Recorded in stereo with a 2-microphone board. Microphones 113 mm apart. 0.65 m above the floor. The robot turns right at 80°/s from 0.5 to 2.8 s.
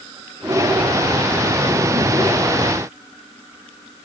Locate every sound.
Only background noise.